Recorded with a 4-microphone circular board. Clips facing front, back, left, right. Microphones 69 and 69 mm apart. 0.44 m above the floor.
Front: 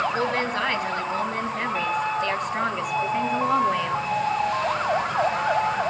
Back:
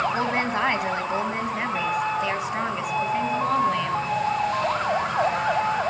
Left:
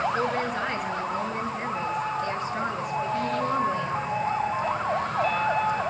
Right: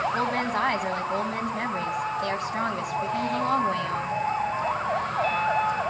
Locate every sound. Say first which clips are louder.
0.1 s a woman speaking: even, right 1 dB; 115° right, 3.5 m; by 4.1 s 80° right, 4 m